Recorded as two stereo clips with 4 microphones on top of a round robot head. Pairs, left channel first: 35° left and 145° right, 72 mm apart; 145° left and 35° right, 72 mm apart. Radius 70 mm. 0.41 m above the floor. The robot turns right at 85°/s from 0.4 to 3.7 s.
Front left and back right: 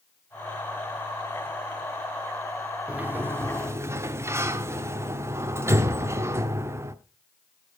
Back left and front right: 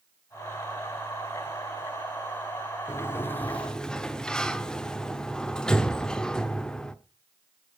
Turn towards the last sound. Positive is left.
turn(degrees=-140)